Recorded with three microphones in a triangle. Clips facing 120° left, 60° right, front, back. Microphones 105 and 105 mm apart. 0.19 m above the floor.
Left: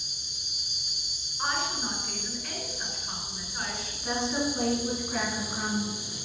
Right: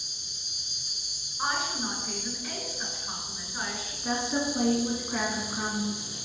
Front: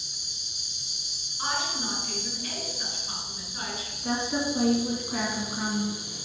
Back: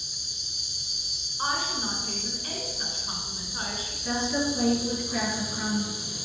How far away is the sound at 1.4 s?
About 2 m.